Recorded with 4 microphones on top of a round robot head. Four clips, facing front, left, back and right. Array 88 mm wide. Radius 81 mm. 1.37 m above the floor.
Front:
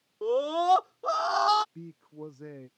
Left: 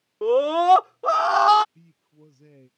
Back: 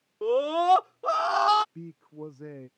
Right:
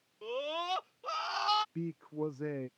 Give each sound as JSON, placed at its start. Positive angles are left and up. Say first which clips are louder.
{"t": 0.2, "sound": "a scream", "louder": "left 18 dB, back 2 dB", "azimuth_deg": 95}
{"t": 1.8, "sound": "a man speaking", "louder": "right 19 dB, back 2 dB", "azimuth_deg": -100}